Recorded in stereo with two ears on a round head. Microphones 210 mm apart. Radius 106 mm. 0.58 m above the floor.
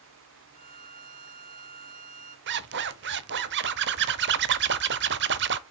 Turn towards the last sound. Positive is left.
turn(degrees=-50)  # may be behind; listen again after turning